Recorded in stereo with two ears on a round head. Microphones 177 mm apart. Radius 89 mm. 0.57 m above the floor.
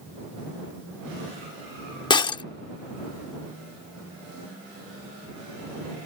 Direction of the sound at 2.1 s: 25° left (ahead or behind).